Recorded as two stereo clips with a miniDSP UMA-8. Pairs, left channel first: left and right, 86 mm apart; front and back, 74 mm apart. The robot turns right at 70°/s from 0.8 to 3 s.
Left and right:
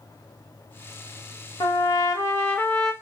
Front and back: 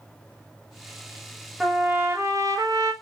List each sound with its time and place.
1.6 s a trumpet: 95° left, 1.0 m; by 2.9 s 175° right, 1.0 m